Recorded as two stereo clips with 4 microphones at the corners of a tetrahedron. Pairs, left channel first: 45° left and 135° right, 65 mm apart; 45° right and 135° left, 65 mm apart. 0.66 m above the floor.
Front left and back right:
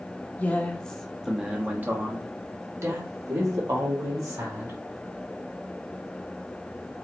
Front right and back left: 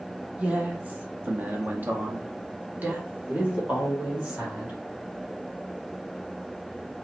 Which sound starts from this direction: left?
A man speaking, at 0.4 s.